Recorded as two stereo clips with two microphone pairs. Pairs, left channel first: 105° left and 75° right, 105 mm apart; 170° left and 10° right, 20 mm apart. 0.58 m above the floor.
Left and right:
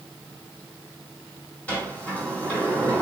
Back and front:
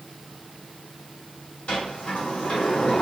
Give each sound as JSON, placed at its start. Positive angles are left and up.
{"t": 1.7, "sound": "a sliding door", "azimuth_deg": 180, "distance_m": 1.8}